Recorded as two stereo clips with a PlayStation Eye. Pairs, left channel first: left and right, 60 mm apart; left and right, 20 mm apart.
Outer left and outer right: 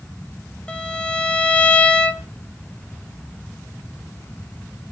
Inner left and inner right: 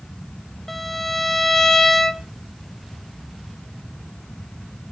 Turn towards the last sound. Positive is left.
turn(degrees=20)  # may be behind; listen again after turning